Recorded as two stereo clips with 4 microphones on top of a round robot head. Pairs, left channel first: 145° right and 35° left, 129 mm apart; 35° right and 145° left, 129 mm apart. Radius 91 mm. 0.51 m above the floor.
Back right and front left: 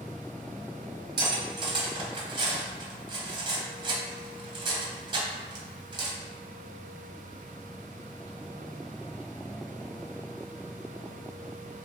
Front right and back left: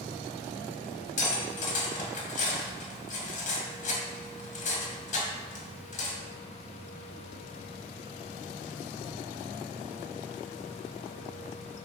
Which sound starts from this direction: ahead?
Cutlery clinking, at 1.2 s.